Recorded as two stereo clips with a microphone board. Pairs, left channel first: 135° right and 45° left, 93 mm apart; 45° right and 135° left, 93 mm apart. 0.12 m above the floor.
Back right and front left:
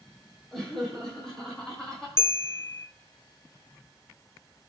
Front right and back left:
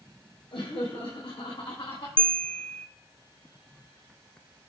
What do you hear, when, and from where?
0.5 s laughter: 50° right, 4 m
2.2 s a bell: 110° right, 0.5 m